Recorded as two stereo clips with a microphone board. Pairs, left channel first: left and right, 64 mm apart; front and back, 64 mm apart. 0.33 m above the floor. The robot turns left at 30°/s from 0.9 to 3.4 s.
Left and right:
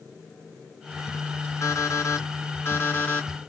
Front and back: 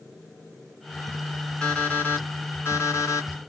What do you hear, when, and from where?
1.6 s an alarm clock: 75° left, 1.1 m; by 3.3 s 25° left, 1.1 m